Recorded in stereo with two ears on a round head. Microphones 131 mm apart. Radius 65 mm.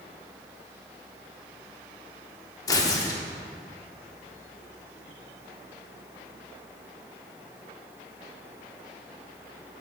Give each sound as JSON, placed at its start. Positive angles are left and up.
{"t": 2.7, "sound": "tearing paper", "side_deg": 25, "distance_m": 0.7}